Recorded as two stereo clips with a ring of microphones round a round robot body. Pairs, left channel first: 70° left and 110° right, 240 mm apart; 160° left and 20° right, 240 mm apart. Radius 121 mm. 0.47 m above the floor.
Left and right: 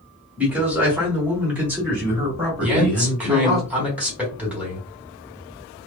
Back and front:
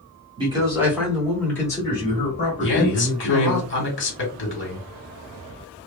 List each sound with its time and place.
0.4 s a man speaking: 40° right, 1.3 m; by 3.6 s 165° left, 1.8 m
2.6 s a man speaking: 165° left, 1.6 m